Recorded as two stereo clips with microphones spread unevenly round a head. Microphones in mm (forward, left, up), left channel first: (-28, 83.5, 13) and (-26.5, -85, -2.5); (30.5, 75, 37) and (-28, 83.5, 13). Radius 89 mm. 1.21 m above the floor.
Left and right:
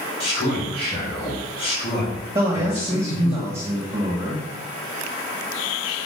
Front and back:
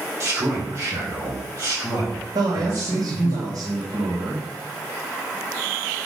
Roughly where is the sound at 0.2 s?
Behind left.